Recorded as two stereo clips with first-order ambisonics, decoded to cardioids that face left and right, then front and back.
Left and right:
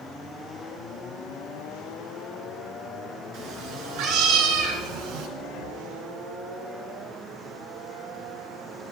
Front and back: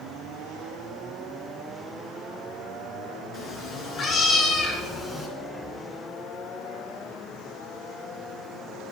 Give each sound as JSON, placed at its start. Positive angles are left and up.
{"t": 3.3, "sound": "a cat meowing", "azimuth_deg": -55, "distance_m": 2.5}
{"t": 5.4, "sound": "breathing", "azimuth_deg": 85, "distance_m": 1.3}